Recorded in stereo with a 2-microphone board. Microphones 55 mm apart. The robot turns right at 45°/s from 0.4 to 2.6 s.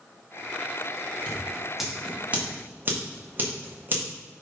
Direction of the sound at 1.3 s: 20° left (ahead or behind).